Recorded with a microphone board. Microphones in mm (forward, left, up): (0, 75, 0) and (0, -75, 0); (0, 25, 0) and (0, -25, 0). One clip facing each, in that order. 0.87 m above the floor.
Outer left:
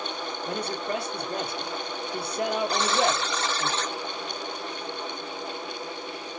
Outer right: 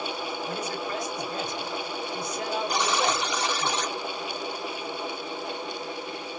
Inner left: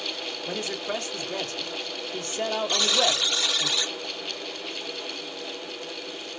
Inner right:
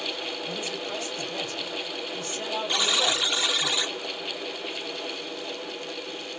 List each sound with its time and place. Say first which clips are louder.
0.5 s a man speaking: outer left 5 dB, inner left 2 dB; 65° left (ahead or behind), 1.2 m
2.7 s a buzzer: outer left 1 dB, inner right 2 dB; 15° right (ahead or behind), 0.7 m